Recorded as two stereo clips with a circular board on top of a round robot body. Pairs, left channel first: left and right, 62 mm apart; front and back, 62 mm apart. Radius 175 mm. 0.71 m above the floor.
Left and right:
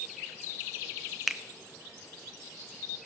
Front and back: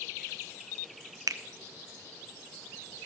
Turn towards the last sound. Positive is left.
turn(degrees=180)